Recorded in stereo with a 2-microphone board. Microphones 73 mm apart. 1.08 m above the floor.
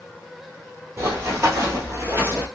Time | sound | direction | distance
1.0 | running footsteps | 45° right (ahead or behind) | 1.6 m